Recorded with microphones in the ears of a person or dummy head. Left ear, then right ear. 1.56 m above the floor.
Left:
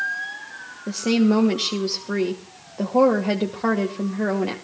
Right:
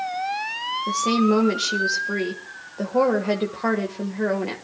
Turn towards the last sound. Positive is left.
turn(degrees=5)  # may be behind; listen again after turning